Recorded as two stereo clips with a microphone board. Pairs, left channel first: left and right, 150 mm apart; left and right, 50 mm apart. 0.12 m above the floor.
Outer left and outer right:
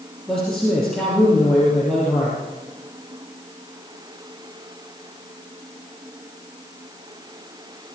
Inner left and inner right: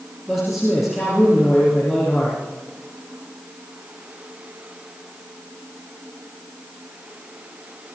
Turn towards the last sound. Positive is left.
turn(degrees=5)  # may be behind; listen again after turning